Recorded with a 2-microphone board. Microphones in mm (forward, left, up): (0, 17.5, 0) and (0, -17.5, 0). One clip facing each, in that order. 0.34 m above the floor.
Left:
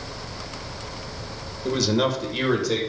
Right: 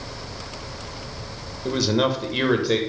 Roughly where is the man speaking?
Centre.